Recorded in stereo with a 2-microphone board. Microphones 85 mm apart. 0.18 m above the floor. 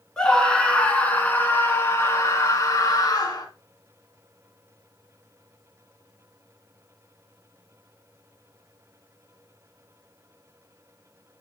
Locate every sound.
0.2 s a scream: 10° left (ahead or behind), 2.5 m; by 3.5 s 45° left (ahead or behind), 2.5 m